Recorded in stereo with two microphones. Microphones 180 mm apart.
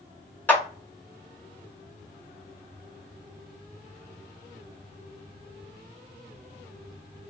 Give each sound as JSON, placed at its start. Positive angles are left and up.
{"t": 0.5, "sound": "a clap", "side_deg": 10, "distance_m": 1.5}